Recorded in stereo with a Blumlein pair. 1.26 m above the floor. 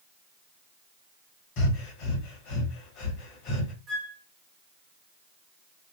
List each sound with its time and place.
1.6 s breathing: 40° left, 0.9 m
3.9 s a flute: 30° right, 1.1 m